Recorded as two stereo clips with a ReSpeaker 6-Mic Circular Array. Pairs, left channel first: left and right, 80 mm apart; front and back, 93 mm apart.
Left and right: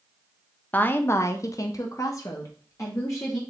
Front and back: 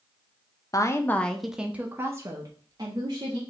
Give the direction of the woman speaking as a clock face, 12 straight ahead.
11 o'clock.